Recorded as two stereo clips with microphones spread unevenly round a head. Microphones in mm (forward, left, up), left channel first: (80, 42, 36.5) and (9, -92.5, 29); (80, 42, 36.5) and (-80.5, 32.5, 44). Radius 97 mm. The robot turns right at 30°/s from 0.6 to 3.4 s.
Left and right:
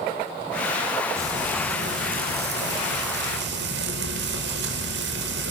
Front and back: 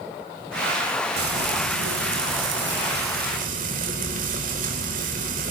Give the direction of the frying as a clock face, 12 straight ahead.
6 o'clock.